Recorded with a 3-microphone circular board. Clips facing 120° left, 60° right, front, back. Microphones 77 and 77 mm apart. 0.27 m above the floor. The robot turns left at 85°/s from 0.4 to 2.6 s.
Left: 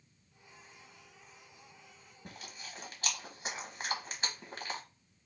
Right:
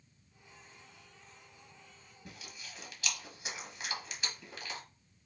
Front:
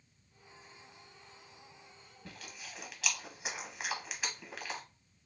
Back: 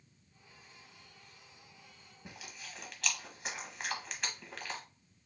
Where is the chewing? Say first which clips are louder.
Left 2 dB, even; 115° left, 1.1 m; by 4.8 s 90° left, 1.1 m.